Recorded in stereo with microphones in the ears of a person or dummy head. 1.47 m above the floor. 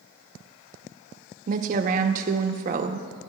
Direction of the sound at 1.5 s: 40° right (ahead or behind).